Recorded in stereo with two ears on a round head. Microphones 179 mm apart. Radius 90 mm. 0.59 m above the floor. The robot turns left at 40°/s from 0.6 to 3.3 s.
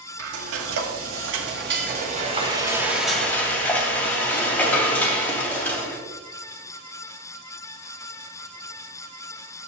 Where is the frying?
80° right, 2 m; by 6.0 s 170° left, 2 m.